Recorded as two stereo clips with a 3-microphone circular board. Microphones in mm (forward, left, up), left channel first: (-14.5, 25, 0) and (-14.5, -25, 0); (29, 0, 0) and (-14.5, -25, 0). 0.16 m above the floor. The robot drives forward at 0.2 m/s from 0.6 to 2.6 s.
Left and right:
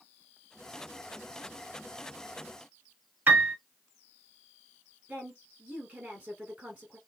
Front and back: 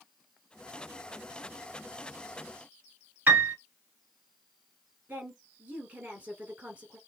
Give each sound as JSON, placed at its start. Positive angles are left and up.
{"t": 3.3, "sound": "a piano", "azimuth_deg": -120, "distance_m": 0.8}
{"t": 5.1, "sound": "a woman speaking", "azimuth_deg": -125, "distance_m": 1.4}